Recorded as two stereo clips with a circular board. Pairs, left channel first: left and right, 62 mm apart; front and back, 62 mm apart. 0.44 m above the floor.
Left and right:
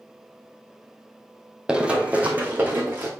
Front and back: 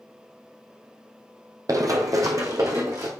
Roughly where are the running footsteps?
Behind.